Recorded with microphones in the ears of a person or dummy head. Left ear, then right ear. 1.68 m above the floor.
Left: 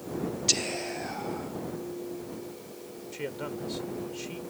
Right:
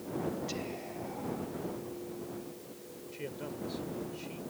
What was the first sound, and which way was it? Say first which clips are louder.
Whispering: left 11 dB; 55° left (ahead or behind).